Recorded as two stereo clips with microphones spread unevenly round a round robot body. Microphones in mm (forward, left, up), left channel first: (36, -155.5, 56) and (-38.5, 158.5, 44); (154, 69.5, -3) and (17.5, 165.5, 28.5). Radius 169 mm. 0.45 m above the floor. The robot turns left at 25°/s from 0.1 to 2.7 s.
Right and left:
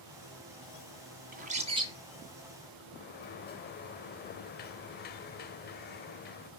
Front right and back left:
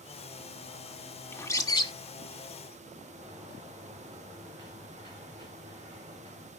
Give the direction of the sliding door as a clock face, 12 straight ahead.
5 o'clock.